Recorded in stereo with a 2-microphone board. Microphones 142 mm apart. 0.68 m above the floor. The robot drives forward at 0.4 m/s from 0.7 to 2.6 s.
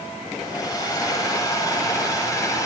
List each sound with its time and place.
0.4 s a hair dryer: 25° left (ahead or behind), 4.5 m